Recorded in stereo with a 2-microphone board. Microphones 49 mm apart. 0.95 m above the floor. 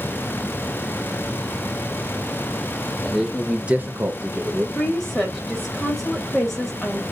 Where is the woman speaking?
10° left (ahead or behind), 0.9 m.